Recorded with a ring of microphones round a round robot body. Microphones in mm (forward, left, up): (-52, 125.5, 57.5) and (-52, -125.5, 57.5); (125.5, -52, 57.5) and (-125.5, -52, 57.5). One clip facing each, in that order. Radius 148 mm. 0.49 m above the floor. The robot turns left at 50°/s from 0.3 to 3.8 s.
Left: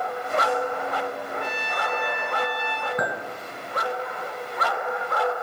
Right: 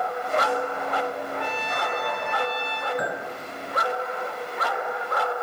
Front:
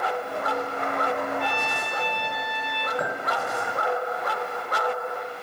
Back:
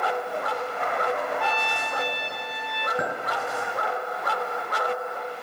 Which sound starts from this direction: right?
A trumpet, at 1.4 s.